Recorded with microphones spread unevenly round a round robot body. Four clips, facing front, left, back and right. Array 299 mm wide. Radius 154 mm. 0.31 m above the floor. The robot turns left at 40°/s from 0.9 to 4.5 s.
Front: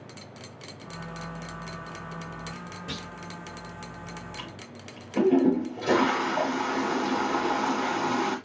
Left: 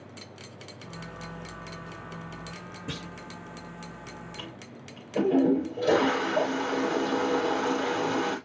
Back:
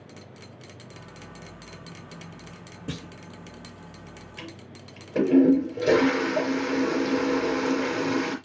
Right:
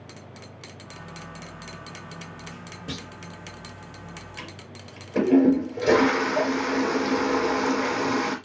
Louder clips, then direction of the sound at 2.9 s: Right 2 dB, back 5 dB; 175° left.